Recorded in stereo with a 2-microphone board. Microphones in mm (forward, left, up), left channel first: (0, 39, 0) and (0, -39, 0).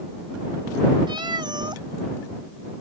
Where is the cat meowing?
80° right.